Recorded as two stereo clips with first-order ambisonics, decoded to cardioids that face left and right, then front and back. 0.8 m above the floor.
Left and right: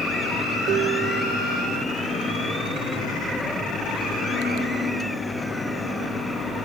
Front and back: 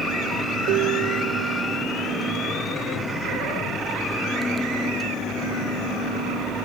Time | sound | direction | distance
0.7 | dishes clattering | 140° right | ?